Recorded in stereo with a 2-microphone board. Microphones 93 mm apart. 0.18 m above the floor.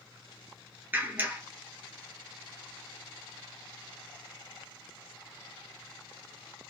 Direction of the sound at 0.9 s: 25° right (ahead or behind).